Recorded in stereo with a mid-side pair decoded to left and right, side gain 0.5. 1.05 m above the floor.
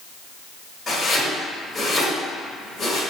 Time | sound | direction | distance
0.9 | chopping | 30° left | 1.9 m